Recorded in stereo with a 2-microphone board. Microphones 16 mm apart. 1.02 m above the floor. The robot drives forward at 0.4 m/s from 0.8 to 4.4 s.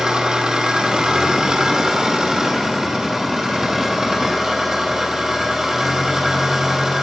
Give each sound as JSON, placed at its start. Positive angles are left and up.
{"t": 0.0, "sound": "an engine running", "side_deg": -50, "distance_m": 1.9}